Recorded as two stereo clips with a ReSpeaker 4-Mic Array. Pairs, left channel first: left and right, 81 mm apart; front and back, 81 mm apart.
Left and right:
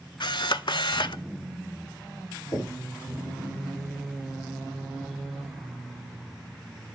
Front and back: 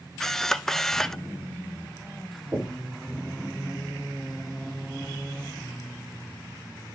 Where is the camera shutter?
85° left, 0.5 m.